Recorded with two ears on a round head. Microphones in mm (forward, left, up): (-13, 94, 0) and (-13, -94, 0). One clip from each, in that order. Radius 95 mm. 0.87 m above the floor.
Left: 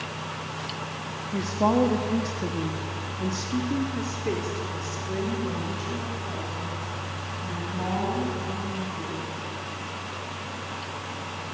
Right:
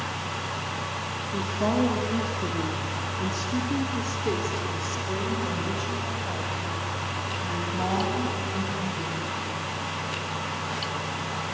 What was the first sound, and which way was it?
A woman speaking, 70° left (ahead or behind).